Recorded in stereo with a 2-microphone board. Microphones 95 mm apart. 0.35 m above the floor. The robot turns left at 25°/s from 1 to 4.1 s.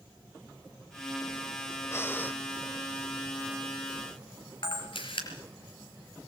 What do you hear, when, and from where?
1.9 s breathing: 30° left (ahead or behind), 0.9 m; by 2.4 s 20° left (ahead or behind), 0.9 m
4.6 s a camera shutter: 65° left (ahead or behind), 4.5 m